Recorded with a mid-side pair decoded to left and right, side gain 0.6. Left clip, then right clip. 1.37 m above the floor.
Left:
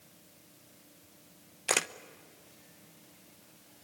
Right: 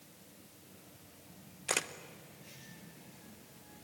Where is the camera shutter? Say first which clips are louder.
Left 5 dB; 30° left, 0.9 m.